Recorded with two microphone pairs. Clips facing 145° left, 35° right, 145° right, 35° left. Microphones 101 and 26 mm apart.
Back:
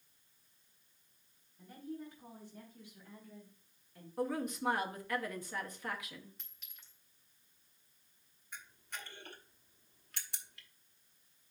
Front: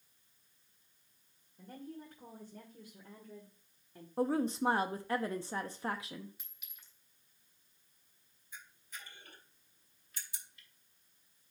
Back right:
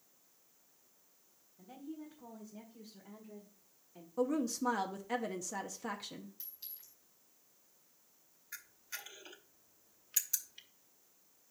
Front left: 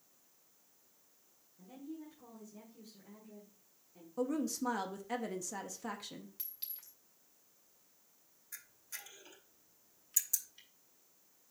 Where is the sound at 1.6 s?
60° right, 2.5 m; by 4.1 s 90° right, 1.7 m.